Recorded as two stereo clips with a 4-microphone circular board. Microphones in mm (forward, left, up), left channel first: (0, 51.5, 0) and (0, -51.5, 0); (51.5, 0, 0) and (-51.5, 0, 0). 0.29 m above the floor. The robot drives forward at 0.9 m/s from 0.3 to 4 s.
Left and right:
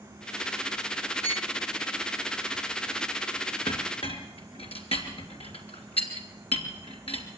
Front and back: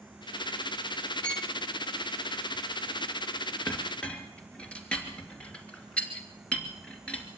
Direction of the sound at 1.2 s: 75° left.